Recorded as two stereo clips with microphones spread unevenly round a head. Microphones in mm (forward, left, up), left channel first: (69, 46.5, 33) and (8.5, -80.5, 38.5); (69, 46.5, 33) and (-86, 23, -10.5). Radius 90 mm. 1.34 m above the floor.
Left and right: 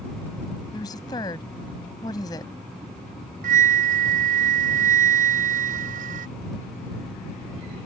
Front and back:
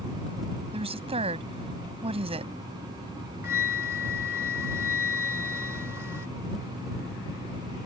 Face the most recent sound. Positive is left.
turn(degrees=-90)